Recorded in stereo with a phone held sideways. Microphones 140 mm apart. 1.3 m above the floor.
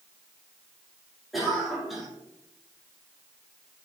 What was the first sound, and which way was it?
A cough, centre (ahead or behind).